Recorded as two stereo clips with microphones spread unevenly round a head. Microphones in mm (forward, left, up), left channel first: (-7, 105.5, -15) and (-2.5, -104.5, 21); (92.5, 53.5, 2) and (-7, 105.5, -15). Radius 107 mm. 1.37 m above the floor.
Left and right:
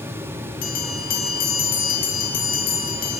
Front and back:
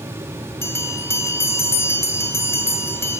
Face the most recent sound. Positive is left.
turn(degrees=40)